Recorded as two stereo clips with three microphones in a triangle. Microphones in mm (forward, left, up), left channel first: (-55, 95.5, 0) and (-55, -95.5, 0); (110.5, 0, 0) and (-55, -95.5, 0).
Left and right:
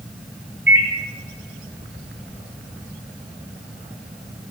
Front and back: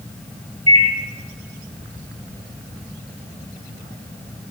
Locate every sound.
0.7 s a microwave: 95° right, 3 m